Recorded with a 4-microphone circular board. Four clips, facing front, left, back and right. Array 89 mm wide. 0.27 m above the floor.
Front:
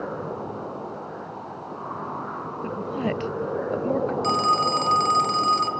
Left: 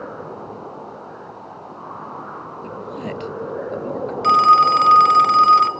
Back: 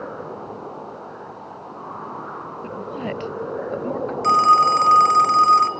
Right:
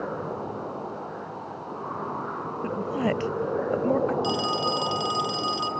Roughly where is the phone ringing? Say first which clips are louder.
Left 14 dB, back 10 dB; left.